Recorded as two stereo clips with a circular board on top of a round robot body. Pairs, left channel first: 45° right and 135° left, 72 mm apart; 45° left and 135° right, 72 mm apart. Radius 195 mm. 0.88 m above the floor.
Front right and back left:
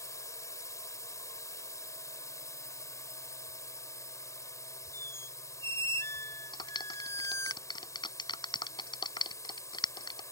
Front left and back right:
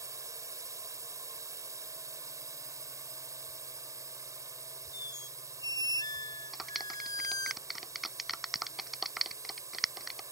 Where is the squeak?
10° left.